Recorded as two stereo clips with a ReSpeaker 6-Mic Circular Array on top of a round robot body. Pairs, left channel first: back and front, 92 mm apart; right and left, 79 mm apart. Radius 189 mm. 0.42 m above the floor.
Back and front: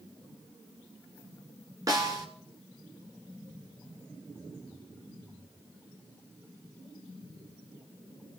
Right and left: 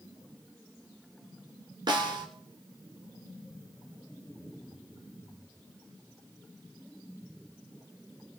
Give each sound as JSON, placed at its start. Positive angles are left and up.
{"t": 1.9, "sound": "a snare drum", "azimuth_deg": 55, "distance_m": 1.3}